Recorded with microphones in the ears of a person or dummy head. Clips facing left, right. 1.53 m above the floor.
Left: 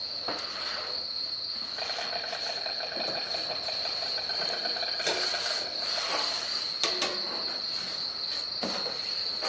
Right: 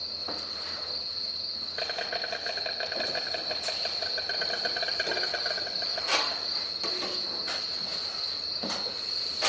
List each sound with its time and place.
0.0 s an insect: 30° right (ahead or behind), 2.5 m